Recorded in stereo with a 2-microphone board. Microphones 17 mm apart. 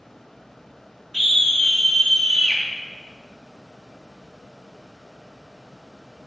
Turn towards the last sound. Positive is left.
turn(degrees=60)  # may be behind; listen again after turning